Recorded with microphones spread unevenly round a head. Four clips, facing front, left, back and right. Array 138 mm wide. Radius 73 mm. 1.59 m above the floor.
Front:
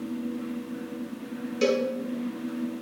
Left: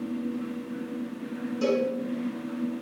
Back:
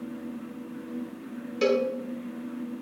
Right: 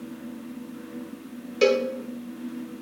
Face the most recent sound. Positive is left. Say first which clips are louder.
# right 5 dB, back 1 dB
turn(degrees=-75)